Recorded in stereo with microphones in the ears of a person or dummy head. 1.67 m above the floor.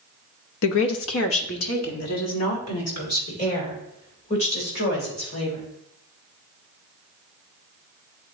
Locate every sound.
0.6 s a woman speaking: 75° left (ahead or behind), 0.8 m; by 5.6 s 80° left, 5 m